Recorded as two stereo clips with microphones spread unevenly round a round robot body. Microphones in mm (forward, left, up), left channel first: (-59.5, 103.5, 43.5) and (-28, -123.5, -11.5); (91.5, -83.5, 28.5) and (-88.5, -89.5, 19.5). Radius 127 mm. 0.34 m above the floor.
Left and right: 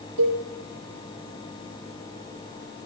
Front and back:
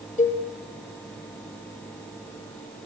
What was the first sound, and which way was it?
A cowbell, 40° right.